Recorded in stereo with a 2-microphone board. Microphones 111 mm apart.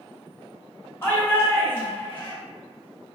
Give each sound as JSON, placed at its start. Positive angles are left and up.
{"t": 1.0, "sound": "a shout", "side_deg": 20, "distance_m": 1.3}